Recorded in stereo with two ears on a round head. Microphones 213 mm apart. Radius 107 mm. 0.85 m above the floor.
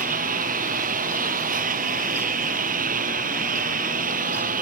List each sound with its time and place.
0.0 s a lawn mower: 35° right (ahead or behind)